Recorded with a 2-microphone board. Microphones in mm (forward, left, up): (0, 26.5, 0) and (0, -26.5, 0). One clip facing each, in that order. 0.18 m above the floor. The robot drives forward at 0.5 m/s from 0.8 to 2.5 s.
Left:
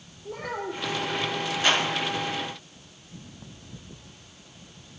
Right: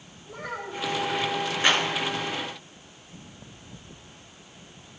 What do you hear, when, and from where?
0.2 s a child speaking: 60° left (ahead or behind), 3 m
1.6 s a clap: 20° right (ahead or behind), 2 m